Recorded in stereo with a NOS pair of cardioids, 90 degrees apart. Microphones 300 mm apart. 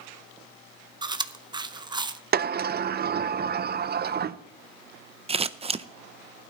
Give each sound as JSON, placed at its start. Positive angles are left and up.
{"t": 1.0, "sound": "chewing", "azimuth_deg": -15, "distance_m": 0.7}
{"t": 2.3, "sound": "a sliding door", "azimuth_deg": -35, "distance_m": 0.5}
{"t": 5.3, "sound": "scissors", "azimuth_deg": -20, "distance_m": 0.6}